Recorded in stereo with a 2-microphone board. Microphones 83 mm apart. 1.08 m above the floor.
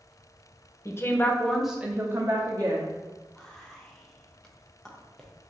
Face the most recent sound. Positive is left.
turn(degrees=5)  # may be behind; listen again after turning